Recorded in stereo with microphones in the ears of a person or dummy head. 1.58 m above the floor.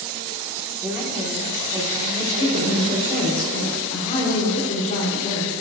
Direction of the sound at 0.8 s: Centre (ahead or behind).